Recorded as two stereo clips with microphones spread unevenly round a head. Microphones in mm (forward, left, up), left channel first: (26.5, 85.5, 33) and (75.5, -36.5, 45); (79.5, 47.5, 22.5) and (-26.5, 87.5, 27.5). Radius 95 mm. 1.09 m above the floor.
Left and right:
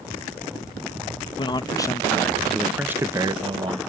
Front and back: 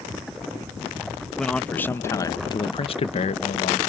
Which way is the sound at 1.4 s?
65° left.